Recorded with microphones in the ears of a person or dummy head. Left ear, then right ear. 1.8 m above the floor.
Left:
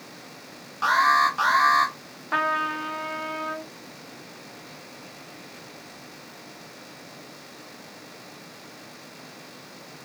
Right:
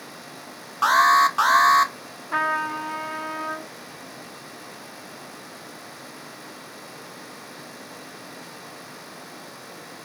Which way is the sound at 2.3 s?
20° left (ahead or behind).